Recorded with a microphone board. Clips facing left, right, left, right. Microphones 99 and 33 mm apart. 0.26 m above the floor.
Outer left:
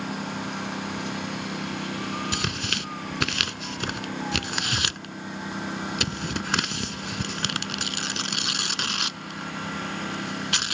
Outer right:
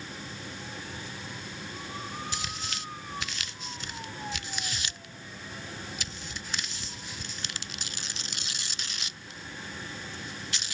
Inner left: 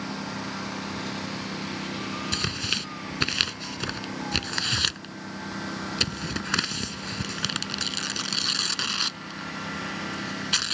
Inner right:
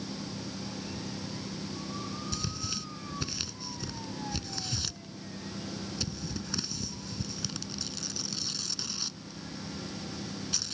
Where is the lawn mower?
70° left (ahead or behind).